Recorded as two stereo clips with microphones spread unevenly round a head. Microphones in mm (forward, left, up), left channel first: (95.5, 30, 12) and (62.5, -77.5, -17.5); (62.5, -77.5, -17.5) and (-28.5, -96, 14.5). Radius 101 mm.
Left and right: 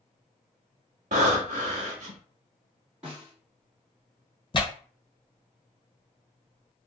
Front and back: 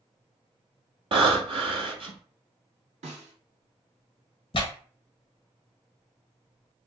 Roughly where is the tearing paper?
Ahead.